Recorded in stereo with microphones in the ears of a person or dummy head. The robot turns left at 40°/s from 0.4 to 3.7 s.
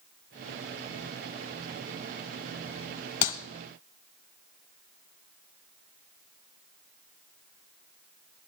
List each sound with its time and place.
3.2 s a clap: 40° left (ahead or behind), 1.2 m; by 3.4 s 45° left (ahead or behind), 1.2 m